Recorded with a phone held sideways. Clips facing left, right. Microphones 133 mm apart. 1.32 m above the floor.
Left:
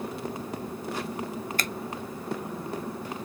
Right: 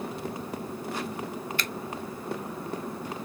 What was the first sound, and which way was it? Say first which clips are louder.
A finger snap: left 2 dB; 45° left (ahead or behind).